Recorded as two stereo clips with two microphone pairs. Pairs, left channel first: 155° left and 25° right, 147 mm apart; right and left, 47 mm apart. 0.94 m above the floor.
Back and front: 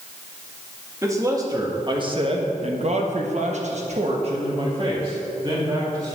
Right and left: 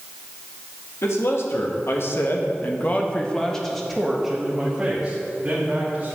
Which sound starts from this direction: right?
A man speaking, at 1.0 s.